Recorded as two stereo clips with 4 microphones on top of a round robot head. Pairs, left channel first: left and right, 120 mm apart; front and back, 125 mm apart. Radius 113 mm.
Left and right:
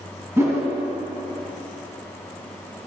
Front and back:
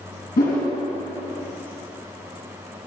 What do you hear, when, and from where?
0.4 s a whoosh: 20° right, 3 m